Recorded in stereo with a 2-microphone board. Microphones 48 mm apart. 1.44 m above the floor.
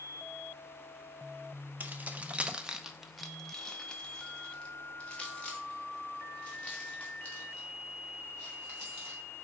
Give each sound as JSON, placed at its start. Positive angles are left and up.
{"t": 1.8, "sound": "keys jangling", "side_deg": -35, "distance_m": 0.7}